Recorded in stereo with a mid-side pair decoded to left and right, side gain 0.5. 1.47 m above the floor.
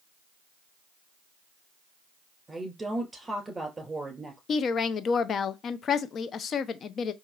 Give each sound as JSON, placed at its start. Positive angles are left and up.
{"t": 2.5, "sound": "a woman speaking", "azimuth_deg": -20, "distance_m": 2.5}
{"t": 4.5, "sound": "a woman speaking", "azimuth_deg": 50, "distance_m": 0.5}